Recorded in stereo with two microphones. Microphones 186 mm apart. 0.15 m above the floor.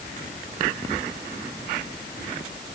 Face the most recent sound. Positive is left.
No sound to turn to.